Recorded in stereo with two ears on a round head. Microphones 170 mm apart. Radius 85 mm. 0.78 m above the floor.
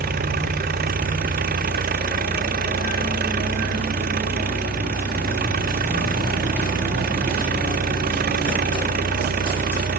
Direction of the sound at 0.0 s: 50° right (ahead or behind).